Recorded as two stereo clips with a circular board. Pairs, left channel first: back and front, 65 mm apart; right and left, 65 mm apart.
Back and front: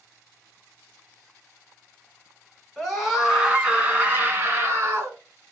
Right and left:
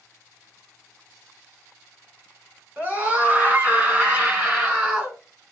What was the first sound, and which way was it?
A scream, 100° left.